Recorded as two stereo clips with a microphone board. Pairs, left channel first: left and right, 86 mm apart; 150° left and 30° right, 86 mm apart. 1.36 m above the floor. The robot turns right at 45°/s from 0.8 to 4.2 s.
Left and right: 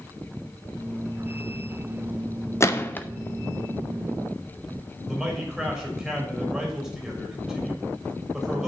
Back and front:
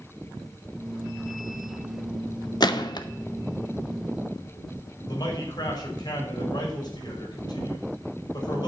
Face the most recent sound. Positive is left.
turn(degrees=-170)